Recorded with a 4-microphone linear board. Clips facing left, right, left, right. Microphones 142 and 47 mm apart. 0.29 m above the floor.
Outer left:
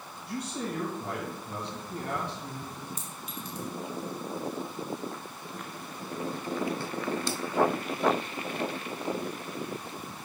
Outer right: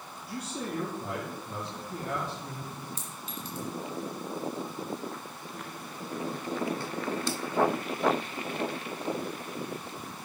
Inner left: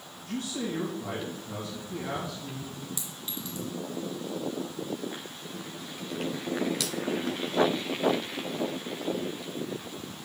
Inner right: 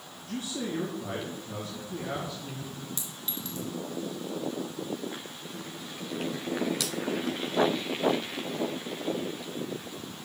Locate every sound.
0.3 s a man speaking: 65° left (ahead or behind), 3.5 m
3.0 s a clink: 15° left (ahead or behind), 3 m